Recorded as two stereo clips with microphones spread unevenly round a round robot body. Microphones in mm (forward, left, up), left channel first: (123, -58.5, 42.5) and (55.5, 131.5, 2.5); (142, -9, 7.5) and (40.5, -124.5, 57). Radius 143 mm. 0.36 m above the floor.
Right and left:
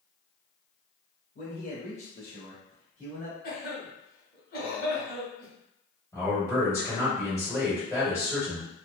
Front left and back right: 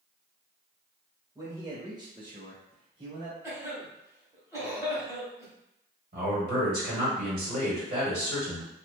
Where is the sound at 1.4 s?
50° right, 1.6 m; by 3.3 s 175° left, 1.4 m.